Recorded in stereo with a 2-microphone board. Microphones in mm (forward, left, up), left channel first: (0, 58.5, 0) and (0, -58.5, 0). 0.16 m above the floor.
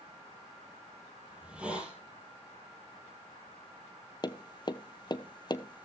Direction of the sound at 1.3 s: 10° right (ahead or behind).